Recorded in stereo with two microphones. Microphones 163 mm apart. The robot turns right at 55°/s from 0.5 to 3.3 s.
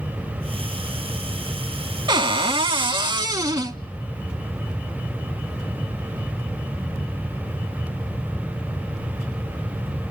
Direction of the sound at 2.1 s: 115° right.